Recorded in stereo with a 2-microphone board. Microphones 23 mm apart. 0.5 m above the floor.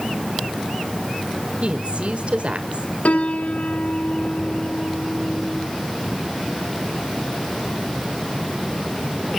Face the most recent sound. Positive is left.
turn(degrees=85)